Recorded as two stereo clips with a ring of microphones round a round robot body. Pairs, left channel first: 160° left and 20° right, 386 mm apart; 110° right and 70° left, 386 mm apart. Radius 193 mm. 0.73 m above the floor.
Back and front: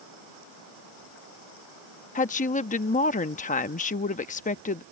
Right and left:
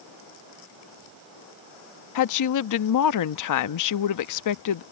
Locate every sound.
2.1 s a woman speaking: 135° right